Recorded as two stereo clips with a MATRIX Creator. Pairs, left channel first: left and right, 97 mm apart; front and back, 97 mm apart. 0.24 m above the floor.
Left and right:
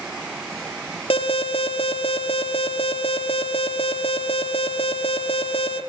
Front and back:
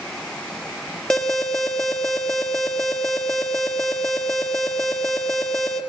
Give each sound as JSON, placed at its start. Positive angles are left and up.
{"t": 1.1, "sound": "an alarm", "azimuth_deg": 85, "distance_m": 4.5}